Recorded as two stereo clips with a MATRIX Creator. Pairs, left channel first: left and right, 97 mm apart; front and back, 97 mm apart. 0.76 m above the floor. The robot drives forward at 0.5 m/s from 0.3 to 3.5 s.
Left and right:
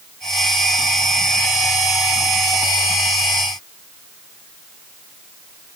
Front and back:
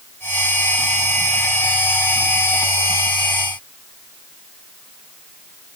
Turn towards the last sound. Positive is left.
No sound to turn to.